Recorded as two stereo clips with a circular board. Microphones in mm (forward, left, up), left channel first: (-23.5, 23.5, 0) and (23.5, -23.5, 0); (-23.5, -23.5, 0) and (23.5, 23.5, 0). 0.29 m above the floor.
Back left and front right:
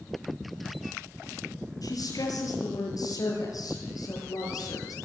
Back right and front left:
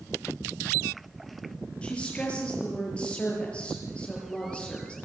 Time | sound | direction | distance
1.8 | a woman speaking | 155° left | 7.5 m